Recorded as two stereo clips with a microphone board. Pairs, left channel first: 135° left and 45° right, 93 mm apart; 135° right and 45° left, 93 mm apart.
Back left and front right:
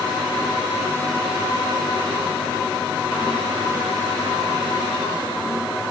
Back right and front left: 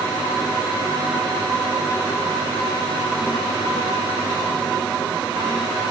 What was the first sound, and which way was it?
Only background noise.